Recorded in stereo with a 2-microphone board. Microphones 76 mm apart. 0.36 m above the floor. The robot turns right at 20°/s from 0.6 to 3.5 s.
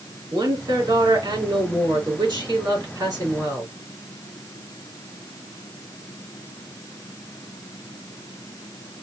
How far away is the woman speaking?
About 4.5 m.